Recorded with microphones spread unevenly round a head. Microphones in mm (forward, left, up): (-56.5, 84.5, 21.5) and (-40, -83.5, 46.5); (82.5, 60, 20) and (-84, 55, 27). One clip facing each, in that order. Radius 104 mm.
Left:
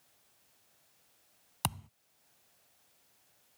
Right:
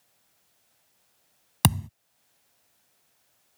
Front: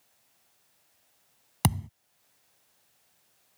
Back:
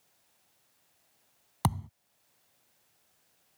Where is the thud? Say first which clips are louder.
Right 13 dB, front 3 dB; 70° right.